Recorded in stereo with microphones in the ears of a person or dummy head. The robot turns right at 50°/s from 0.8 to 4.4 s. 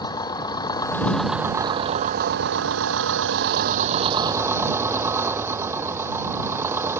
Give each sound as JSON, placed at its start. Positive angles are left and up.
{"t": 0.0, "sound": "an engine running", "azimuth_deg": 160}